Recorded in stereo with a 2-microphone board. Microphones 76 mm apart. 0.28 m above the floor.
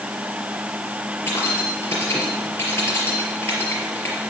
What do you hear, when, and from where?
1.3 s keys jangling: 35° left (ahead or behind), 4 m